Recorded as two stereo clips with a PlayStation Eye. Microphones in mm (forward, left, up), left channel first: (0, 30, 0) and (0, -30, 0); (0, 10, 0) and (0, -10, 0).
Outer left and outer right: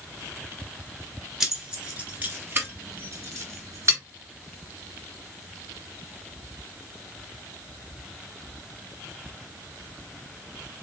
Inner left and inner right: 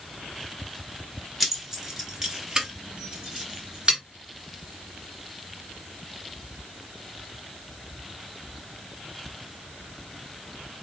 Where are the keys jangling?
10° right (ahead or behind), 1.0 m; by 4.0 s 50° right (ahead or behind), 1.7 m.